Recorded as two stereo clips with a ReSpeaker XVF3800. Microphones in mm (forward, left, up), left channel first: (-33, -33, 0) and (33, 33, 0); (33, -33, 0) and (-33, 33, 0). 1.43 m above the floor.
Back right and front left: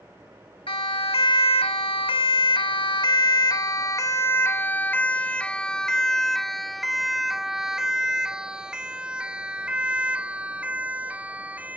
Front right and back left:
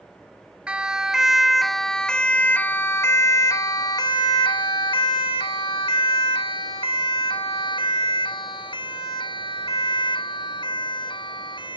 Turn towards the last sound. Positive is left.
turn(degrees=-30)